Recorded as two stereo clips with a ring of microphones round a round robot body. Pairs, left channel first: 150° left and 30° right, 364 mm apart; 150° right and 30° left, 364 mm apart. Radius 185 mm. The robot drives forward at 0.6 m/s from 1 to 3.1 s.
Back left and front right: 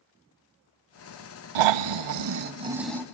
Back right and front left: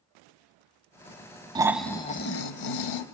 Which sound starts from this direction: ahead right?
Snoring, at 1.6 s.